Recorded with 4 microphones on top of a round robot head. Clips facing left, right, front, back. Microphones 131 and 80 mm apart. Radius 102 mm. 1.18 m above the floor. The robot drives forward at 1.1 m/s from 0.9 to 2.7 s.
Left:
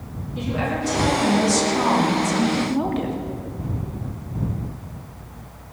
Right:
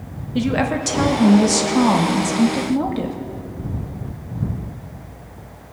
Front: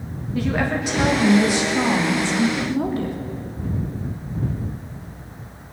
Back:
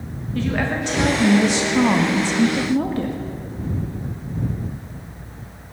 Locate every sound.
0.3 s a woman speaking: 80° right, 1.4 m; by 3.2 s 145° right, 2.5 m